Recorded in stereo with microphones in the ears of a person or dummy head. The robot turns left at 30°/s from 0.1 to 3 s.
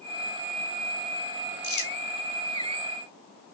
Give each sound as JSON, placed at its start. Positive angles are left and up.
{"t": 1.6, "sound": "crumpling", "side_deg": 25, "distance_m": 0.7}